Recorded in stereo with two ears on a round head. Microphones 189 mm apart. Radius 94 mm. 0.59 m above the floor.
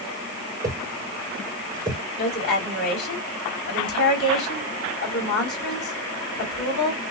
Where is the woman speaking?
55° left (ahead or behind), 3 m.